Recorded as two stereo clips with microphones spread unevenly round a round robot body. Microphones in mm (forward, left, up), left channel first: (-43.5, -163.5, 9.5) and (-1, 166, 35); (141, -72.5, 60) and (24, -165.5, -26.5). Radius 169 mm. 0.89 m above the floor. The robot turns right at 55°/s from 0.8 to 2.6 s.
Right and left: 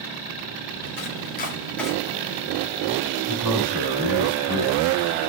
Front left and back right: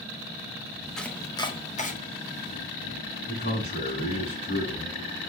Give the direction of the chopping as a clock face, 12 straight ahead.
2 o'clock.